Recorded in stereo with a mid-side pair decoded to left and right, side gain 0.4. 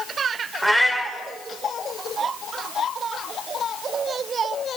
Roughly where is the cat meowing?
Ahead.